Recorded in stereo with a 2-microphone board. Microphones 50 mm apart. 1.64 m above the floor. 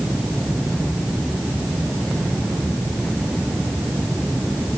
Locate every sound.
Only background noise.